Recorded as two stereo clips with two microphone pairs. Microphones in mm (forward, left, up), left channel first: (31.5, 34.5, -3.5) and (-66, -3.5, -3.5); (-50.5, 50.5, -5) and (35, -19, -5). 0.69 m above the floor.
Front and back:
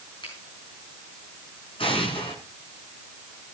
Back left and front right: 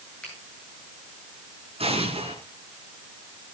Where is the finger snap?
60° left, 8.5 m.